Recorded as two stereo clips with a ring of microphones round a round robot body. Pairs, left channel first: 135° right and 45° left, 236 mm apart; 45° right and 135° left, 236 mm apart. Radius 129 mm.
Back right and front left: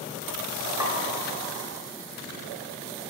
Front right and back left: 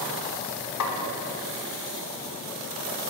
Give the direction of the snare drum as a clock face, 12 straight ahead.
1 o'clock.